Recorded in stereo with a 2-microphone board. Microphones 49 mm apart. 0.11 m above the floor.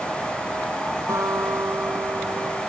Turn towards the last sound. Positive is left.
turn(degrees=-80)